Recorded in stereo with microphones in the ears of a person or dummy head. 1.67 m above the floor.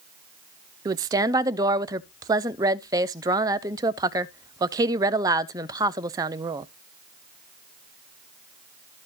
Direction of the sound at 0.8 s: 20° right (ahead or behind).